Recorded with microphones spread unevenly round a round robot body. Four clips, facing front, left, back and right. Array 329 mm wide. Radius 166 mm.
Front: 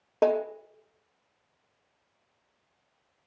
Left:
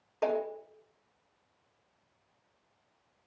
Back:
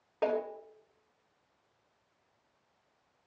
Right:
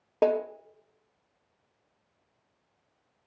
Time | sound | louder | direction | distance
0.2 | a snare drum | right 6 dB, front 7 dB | 45° right | 2.0 m